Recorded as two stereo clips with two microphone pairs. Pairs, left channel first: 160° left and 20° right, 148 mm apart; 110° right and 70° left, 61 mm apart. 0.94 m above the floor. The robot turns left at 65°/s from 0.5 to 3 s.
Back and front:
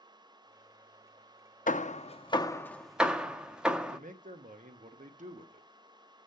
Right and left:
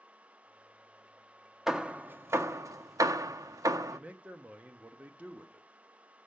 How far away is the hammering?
About 0.6 m.